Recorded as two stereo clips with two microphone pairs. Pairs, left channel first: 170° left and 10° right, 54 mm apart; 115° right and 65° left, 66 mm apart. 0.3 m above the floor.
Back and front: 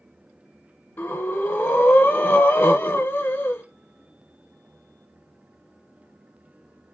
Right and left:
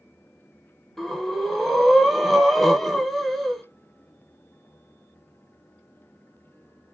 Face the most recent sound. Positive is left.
turn(degrees=160)